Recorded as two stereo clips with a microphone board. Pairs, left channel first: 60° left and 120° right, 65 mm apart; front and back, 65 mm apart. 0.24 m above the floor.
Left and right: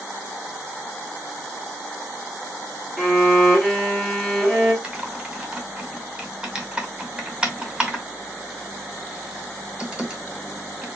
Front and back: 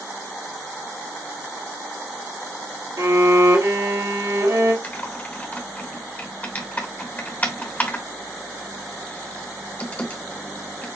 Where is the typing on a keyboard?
50° right, 1.7 m.